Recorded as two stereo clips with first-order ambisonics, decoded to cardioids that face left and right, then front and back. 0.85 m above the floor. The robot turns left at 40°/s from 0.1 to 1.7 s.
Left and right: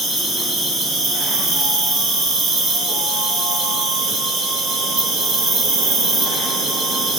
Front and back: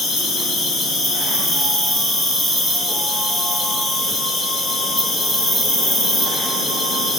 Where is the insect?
15° right, 2 m; by 7.2 s 80° right, 2 m.